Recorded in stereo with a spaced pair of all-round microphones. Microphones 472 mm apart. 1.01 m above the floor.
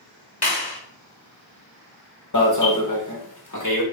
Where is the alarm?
40° left (ahead or behind), 1.1 m.